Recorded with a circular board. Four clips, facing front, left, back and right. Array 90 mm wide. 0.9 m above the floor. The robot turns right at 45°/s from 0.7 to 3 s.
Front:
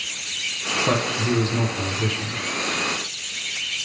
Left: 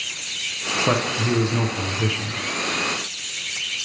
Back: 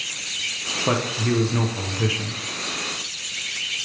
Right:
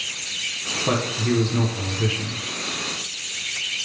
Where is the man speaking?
120° left, 0.7 m; by 2.4 s 170° right, 0.7 m.